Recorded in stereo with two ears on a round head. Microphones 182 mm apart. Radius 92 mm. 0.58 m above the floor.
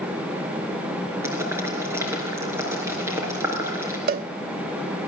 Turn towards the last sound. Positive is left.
turn(degrees=-45)  # may be behind; listen again after turning